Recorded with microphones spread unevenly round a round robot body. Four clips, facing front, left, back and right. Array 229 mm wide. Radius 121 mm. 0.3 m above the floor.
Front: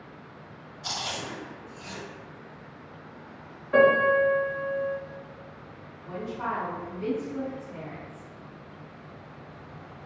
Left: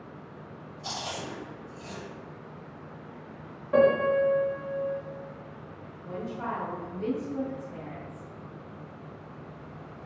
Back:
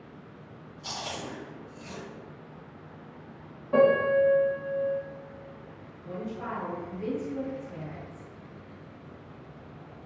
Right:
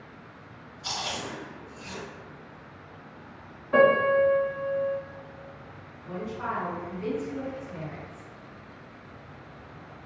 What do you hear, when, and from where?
0.8 s chewing: 160° left, 1.8 m
3.7 s a piano: 175° right, 1.4 m
6.0 s a woman speaking: 95° left, 1.5 m